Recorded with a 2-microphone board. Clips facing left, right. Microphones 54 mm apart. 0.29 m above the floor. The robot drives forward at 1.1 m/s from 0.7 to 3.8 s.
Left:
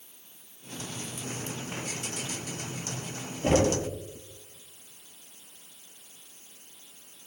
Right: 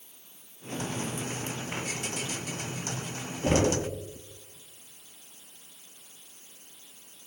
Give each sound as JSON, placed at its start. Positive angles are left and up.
{"t": 3.4, "sound": "knocking", "side_deg": 50, "distance_m": 4.5}